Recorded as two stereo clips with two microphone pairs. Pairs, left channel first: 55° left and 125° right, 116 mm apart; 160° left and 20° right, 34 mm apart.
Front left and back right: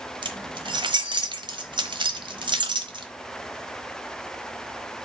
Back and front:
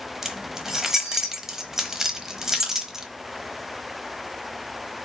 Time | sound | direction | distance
0.2 | keys jangling | 95° right | 1.1 m